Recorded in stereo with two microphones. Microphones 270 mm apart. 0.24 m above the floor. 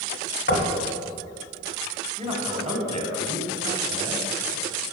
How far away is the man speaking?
About 1.5 m.